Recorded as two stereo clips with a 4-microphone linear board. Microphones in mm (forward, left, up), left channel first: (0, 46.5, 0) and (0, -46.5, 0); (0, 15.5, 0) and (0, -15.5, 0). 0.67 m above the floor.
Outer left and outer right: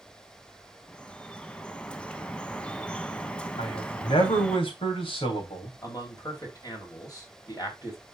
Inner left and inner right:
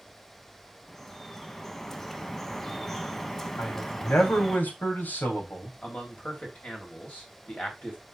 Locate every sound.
0.9 s dripping: 10° left (ahead or behind), 0.7 m
3.6 s a man speaking: 75° left (ahead or behind), 3.5 m
5.8 s a man speaking: 40° left (ahead or behind), 3.5 m